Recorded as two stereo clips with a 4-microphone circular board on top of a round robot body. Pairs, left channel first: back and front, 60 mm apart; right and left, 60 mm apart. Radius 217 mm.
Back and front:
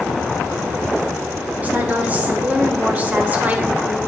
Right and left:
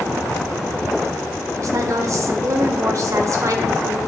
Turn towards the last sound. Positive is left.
turn(degrees=60)